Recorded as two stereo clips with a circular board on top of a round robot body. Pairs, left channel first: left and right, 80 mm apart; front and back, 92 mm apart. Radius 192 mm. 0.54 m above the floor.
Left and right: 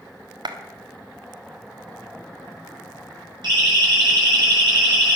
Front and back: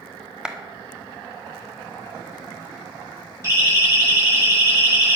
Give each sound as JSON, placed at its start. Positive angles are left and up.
{"t": 0.5, "sound": "a clap", "azimuth_deg": -100, "distance_m": 1.6}
{"t": 3.4, "sound": "a siren", "azimuth_deg": -125, "distance_m": 9.0}